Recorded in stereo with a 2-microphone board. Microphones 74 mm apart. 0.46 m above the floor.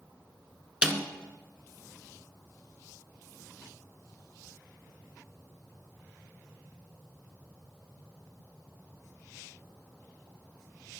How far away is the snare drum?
About 1.1 m.